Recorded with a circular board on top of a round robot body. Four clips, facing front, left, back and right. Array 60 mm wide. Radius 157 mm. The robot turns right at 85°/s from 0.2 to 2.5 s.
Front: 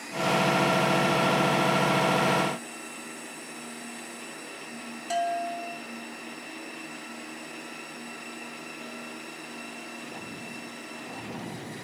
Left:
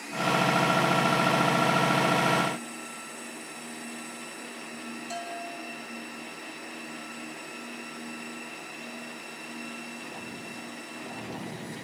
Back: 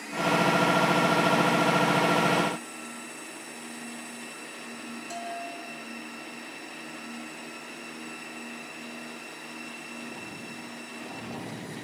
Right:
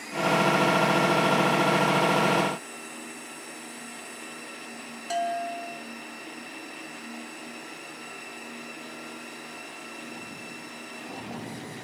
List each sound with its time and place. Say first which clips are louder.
5.1 s a bell: right 11 dB, front 10 dB; 55° right, 5.5 m